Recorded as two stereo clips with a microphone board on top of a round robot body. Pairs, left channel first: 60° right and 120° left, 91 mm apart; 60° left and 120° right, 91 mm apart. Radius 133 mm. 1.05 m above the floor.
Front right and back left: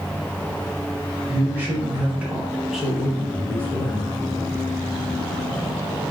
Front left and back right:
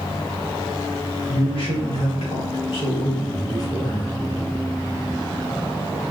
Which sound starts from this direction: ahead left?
A man speaking, at 1.3 s.